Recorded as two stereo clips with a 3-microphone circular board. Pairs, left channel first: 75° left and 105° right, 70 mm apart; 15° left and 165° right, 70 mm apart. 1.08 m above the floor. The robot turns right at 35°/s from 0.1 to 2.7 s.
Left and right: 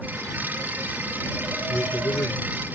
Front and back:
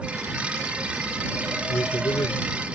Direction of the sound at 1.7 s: 15° left.